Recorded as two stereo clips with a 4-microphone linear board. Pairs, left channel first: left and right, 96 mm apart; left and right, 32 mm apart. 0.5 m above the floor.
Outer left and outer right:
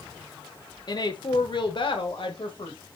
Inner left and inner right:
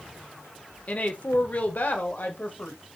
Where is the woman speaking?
45° left (ahead or behind), 1.0 m; by 2.8 s 70° left (ahead or behind), 2.0 m.